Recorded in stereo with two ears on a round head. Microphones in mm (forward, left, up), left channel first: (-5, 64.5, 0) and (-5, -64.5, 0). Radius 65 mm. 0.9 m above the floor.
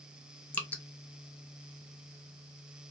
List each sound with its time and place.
0.5 s dripping: 10° left (ahead or behind), 0.6 m